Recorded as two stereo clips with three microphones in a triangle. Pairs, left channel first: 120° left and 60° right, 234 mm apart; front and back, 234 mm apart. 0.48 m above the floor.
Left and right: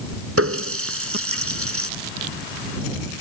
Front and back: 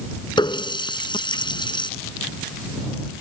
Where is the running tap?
70° right.